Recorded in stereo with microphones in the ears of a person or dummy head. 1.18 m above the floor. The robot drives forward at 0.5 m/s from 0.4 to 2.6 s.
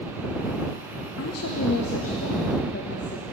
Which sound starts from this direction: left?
A woman speaking, at 1.2 s.